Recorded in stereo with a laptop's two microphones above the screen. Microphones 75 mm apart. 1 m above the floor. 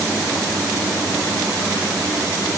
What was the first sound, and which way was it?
Only background noise.